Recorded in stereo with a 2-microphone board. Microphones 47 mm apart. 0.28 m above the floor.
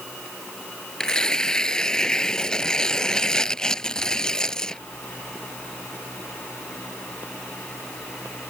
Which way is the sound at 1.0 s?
15° left (ahead or behind).